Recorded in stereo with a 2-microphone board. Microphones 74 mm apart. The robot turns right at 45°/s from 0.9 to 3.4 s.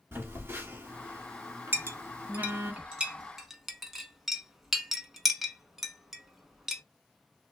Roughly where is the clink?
Right.